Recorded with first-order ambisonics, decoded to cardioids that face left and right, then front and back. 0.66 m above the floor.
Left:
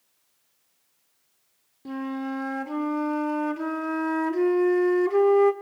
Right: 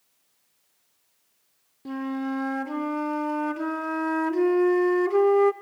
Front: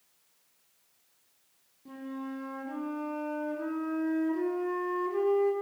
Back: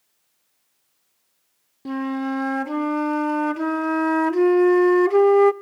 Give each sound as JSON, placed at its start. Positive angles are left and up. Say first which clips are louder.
{"t": 1.9, "sound": "a flute", "louder": "right 1 dB, back 14 dB", "azimuth_deg": 180, "distance_m": 1.1}